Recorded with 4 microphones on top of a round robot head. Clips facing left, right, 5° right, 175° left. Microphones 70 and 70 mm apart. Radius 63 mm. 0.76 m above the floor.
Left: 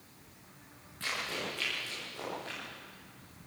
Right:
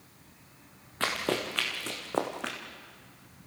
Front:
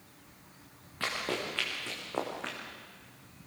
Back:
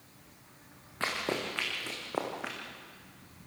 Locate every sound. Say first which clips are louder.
1.0 s running footsteps: right 7 dB, back 1 dB; 110° right, 4 m; by 2.6 s 95° right, 3 m